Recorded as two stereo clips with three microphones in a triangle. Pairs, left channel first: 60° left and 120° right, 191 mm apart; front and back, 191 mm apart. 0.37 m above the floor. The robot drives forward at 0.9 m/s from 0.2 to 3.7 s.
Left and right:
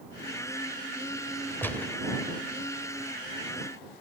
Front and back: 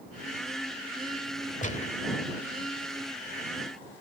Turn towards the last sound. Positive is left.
turn(degrees=-160)